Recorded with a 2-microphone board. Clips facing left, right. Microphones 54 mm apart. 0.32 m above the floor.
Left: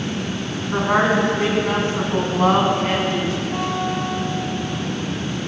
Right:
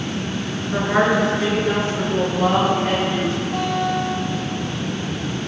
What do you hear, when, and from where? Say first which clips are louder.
0.7 s a woman speaking: even; 45° left (ahead or behind), 3 m; by 3.4 s 60° left (ahead or behind), 3 m
3.5 s a guitar: right 2 dB; 75° left (ahead or behind), 4 m